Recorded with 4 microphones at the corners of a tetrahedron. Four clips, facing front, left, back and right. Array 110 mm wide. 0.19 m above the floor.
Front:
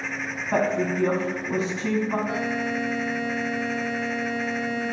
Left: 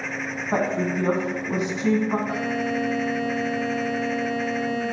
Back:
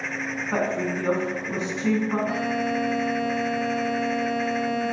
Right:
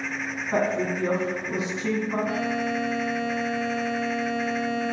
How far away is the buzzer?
About 2.5 m.